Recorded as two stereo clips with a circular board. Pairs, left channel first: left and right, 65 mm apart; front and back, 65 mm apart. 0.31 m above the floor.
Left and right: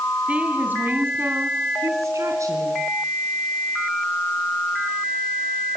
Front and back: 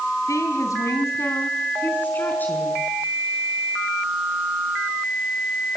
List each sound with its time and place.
0.3 s a woman speaking: 20° right, 3 m; by 2.8 s 65° right, 4 m